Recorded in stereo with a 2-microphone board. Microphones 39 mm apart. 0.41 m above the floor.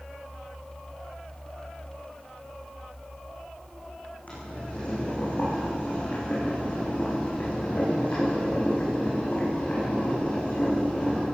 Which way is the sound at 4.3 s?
35° left (ahead or behind).